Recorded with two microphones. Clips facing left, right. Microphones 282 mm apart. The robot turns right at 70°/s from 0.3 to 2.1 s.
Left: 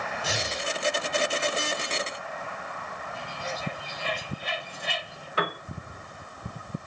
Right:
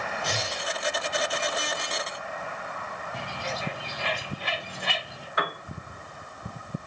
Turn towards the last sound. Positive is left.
turn(degrees=35)  # may be behind; listen again after turning